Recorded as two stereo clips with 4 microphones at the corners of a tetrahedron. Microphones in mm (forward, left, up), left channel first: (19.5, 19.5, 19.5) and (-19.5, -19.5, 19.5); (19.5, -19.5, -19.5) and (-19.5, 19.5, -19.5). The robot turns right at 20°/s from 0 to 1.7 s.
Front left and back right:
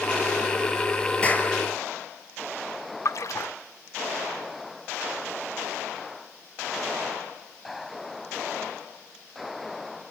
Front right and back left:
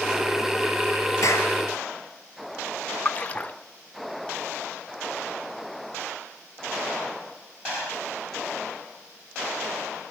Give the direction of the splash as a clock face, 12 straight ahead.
11 o'clock.